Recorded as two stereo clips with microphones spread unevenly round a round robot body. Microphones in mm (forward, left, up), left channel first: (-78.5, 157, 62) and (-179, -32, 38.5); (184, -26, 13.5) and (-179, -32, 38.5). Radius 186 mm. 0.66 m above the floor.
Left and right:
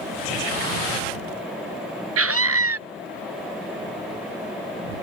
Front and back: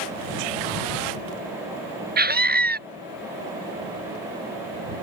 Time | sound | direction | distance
2.2 | a scream | 115° right | ?